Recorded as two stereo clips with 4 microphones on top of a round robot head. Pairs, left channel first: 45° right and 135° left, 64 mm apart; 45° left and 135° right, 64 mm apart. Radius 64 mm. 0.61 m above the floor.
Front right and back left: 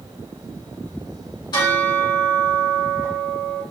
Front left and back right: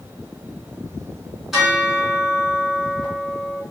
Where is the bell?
50° right, 2.5 m.